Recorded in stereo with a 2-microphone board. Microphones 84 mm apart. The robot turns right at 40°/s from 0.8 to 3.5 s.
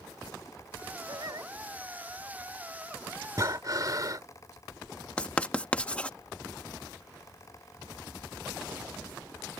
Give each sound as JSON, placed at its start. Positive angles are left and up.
{"t": 1.1, "sound": "singing", "side_deg": -65}
{"t": 3.4, "sound": "breathing", "side_deg": -40}
{"t": 5.2, "sound": "writing", "side_deg": 15}